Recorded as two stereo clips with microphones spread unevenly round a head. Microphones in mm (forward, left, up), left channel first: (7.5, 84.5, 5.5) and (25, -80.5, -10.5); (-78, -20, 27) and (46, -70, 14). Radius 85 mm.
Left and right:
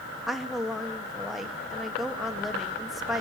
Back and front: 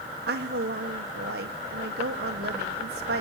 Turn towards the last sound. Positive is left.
turn(degrees=5)